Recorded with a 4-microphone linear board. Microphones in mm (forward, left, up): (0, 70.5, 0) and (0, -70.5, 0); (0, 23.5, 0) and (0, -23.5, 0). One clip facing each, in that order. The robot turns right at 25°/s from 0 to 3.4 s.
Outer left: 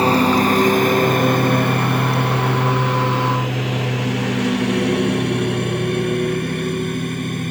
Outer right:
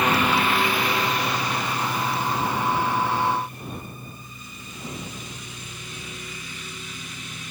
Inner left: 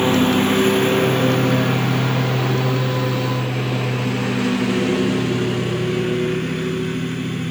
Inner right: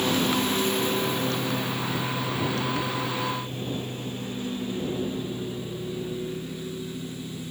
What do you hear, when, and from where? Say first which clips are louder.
0.0 s a lawn mower: outer left 7 dB, inner left 8 dB; 30° left (ahead or behind); by 7.5 s 50° left (ahead or behind)